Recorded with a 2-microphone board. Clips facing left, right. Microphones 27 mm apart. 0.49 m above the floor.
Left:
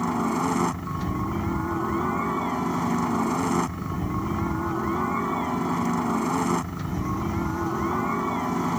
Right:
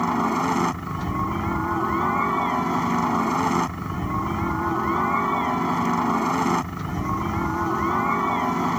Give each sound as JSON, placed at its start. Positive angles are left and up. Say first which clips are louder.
{"t": 0.0, "sound": "a helicopter", "louder": "right 3 dB", "side_deg": -25}